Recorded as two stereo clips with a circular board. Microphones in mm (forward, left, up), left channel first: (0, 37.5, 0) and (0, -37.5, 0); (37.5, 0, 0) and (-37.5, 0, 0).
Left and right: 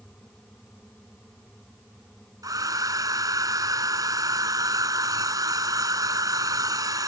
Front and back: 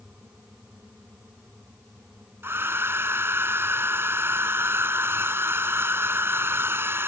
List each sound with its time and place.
2.4 s a hair dryer: 125° right